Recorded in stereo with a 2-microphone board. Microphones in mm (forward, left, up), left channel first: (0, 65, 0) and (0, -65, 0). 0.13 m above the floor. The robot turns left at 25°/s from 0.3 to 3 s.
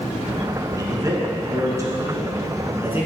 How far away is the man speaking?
About 1.1 m.